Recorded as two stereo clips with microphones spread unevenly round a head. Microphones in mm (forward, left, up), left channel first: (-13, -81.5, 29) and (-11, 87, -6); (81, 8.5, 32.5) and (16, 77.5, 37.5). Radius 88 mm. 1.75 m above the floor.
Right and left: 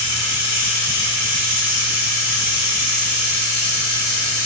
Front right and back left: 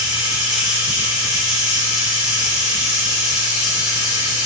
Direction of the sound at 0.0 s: 175° left.